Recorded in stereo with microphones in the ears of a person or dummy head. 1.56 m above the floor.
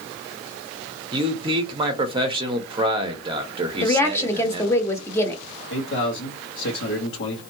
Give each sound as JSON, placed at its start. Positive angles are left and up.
{"t": 1.1, "sound": "a man speaking", "side_deg": -30, "distance_m": 0.8}
{"t": 3.8, "sound": "a woman speaking", "side_deg": 20, "distance_m": 0.8}
{"t": 5.7, "sound": "a man speaking", "side_deg": 70, "distance_m": 1.2}